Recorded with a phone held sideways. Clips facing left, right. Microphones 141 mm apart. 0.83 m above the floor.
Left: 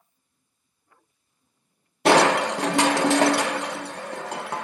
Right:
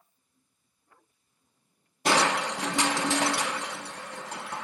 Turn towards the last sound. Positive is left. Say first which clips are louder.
# left 8 dB
turn(degrees=65)  # may be behind; listen again after turning